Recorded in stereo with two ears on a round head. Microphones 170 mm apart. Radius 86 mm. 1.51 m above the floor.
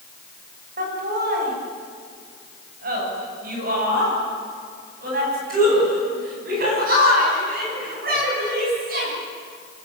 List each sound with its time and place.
0.8 s laughter: 45° right (ahead or behind), 8.5 m; by 9.1 s 50° right (ahead or behind), 14.5 m